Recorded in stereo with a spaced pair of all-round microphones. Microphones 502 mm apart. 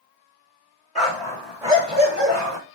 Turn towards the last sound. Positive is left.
turn(degrees=-40)  # may be behind; listen again after turning